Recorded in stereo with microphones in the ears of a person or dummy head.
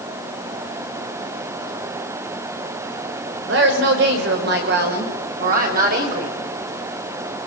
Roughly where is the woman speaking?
Right.